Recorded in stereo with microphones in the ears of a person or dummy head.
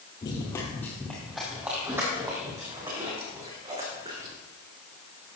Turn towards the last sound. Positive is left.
turn(degrees=-25)  # may be behind; listen again after turning